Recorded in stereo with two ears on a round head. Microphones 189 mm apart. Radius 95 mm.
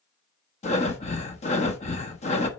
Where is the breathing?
30° left (ahead or behind), 1.1 m.